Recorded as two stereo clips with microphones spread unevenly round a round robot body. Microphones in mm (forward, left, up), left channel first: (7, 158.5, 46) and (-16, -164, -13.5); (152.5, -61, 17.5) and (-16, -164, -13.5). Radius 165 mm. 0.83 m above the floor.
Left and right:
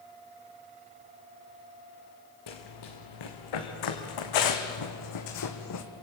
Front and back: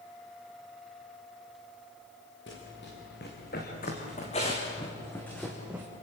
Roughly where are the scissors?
I don't hear scissors.